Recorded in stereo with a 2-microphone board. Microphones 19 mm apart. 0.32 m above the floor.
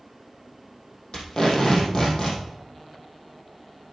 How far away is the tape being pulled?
About 4 m.